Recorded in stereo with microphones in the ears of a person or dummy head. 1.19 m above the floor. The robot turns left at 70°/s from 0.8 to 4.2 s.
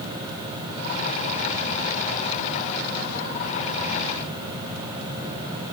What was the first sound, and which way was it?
Only background noise.